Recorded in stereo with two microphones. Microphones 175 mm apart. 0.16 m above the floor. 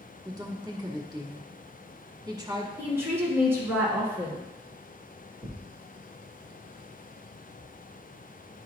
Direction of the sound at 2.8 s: 15° right (ahead or behind).